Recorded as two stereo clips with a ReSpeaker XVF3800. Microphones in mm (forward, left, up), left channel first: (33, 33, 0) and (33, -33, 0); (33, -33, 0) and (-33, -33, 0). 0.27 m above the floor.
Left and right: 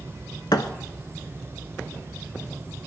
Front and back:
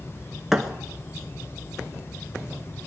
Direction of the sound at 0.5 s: 95° left.